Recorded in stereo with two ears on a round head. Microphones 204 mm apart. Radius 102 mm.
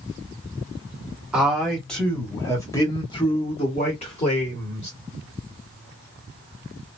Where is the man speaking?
5° right (ahead or behind), 1.3 m; by 4.9 s 30° left (ahead or behind), 1.9 m.